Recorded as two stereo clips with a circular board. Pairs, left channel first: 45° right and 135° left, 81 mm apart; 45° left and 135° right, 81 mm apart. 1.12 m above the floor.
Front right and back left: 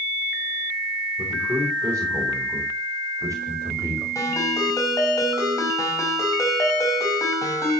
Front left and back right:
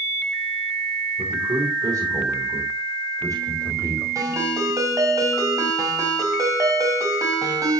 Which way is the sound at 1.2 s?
160° right.